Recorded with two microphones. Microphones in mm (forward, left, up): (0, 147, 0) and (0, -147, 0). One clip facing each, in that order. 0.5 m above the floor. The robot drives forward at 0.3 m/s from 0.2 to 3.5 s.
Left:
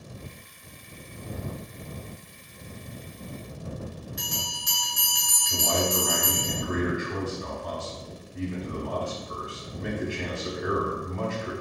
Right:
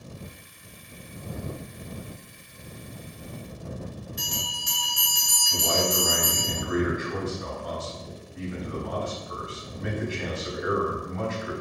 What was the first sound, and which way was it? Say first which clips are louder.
A bell: even; 35° right (ahead or behind).